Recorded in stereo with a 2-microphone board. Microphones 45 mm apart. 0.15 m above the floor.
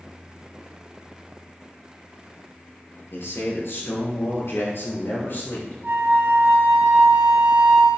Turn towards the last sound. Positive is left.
turn(degrees=-55)  # may be behind; listen again after turning